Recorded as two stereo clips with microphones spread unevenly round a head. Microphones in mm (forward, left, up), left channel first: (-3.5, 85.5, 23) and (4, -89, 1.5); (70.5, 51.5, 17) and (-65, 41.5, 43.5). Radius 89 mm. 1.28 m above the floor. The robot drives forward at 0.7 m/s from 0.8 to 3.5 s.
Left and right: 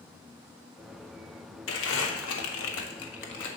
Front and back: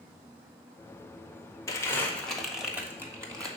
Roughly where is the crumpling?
Left.